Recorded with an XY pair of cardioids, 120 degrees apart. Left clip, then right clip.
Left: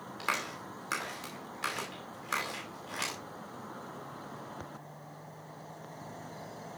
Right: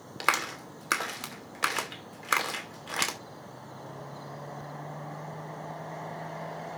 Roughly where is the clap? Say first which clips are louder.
Right 7 dB; ahead right.